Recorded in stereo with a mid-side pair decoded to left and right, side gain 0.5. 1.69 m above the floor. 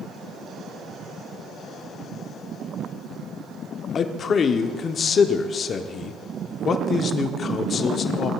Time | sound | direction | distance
4.0 | a man speaking | 50° left | 0.8 m